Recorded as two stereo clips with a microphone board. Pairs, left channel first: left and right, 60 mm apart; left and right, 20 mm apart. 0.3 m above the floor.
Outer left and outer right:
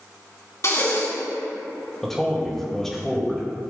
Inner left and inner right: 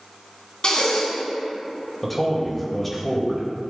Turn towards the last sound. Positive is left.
turn(degrees=5)  # may be behind; listen again after turning